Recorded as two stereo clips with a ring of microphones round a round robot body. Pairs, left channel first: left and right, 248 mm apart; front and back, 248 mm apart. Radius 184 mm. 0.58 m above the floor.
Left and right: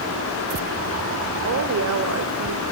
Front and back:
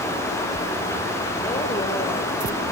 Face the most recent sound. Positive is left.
turn(degrees=-75)